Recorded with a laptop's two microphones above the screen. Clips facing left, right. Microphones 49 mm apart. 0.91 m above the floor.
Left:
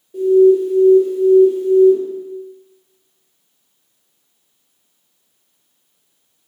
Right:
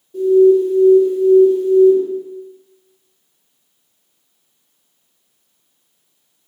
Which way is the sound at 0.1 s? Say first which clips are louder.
Even; 15° left (ahead or behind).